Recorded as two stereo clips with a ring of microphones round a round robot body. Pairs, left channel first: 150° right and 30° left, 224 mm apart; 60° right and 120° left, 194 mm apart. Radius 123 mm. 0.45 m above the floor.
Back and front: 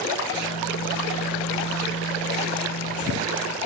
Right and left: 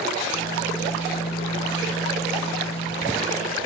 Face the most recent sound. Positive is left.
turn(degrees=-135)